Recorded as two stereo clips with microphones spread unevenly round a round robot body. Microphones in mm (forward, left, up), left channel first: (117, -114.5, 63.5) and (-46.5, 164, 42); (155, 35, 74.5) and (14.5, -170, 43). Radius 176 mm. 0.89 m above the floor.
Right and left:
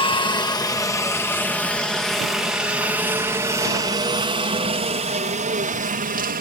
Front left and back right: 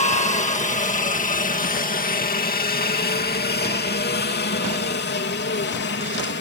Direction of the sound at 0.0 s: 10° left.